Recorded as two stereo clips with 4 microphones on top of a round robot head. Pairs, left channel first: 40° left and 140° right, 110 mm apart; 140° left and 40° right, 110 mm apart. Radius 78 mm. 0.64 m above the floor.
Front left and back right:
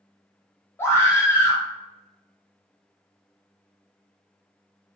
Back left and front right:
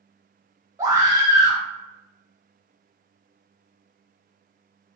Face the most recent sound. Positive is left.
turn(degrees=-10)